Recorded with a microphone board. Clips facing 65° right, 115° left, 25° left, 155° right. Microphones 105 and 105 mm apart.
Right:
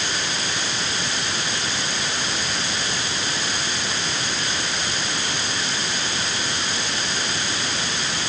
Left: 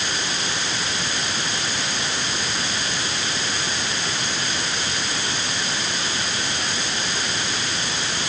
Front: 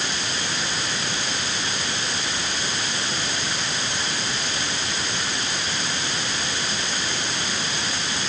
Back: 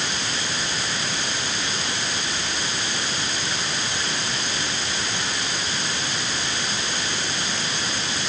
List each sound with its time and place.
Only background noise.